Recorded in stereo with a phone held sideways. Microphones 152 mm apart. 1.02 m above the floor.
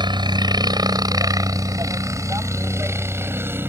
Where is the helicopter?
30° right (ahead or behind); by 3.7 s 15° right (ahead or behind).